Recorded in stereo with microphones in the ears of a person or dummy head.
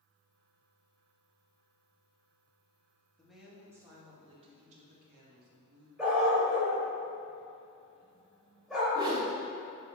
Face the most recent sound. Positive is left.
turn(degrees=-25)  # may be behind; listen again after turning